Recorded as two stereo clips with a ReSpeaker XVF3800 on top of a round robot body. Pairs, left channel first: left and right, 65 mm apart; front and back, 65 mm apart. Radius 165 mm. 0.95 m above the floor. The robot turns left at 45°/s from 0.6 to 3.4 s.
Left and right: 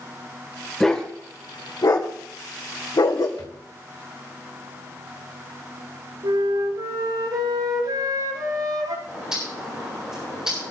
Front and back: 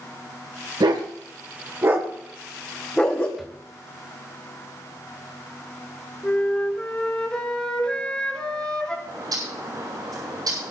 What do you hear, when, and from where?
0.8 s a dog barking: 175° left, 1.8 m; by 3.3 s 65° left, 1.8 m
3.4 s a drawer: 85° left, 1.8 m
6.2 s a flute: 80° right, 5 m
9.1 s a bird: 170° right, 8.5 m